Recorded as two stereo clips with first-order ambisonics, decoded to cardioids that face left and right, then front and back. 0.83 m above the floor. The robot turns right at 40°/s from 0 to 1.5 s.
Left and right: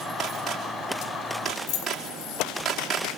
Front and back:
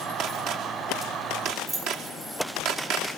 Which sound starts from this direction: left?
Keys jangling, at 1.7 s.